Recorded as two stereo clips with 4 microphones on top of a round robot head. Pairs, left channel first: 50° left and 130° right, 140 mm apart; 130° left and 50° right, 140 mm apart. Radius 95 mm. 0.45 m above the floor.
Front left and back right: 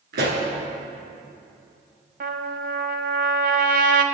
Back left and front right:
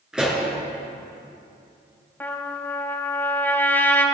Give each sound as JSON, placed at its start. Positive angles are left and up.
{"t": 0.1, "sound": "a pop", "azimuth_deg": -135, "distance_m": 3.5}
{"t": 2.2, "sound": "a trumpet", "azimuth_deg": -155, "distance_m": 1.3}